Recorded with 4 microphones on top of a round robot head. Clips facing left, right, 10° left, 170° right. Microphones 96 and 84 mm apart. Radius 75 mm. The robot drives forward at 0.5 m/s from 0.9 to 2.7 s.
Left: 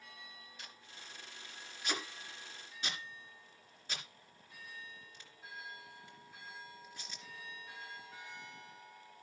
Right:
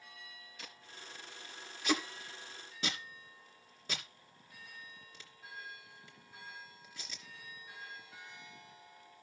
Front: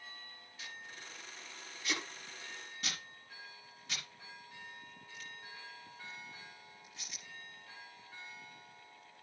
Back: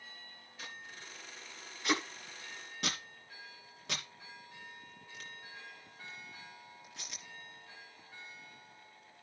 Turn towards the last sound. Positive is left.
turn(degrees=-125)